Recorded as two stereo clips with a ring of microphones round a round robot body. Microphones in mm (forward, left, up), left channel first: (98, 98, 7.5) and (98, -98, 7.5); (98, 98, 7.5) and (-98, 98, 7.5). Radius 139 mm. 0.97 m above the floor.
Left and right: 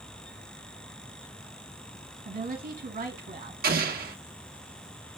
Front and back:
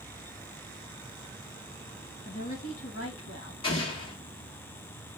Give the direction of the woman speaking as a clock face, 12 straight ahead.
2 o'clock.